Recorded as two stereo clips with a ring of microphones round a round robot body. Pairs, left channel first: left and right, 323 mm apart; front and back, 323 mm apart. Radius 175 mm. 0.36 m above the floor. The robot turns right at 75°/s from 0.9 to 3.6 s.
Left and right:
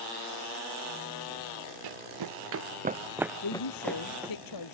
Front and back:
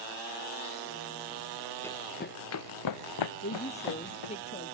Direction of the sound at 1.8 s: 85° right.